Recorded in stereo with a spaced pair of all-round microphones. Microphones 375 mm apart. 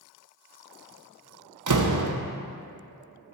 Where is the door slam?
55° right (ahead or behind), 0.5 m.